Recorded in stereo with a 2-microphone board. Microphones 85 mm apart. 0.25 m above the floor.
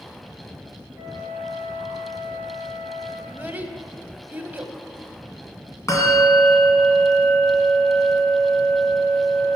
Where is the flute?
15° right (ahead or behind), 4 m.